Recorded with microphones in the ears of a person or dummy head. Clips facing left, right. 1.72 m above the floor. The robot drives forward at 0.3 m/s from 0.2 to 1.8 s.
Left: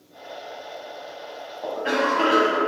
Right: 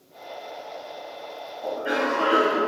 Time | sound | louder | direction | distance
1.6 | a cough | left 2 dB | 80° left | 0.7 m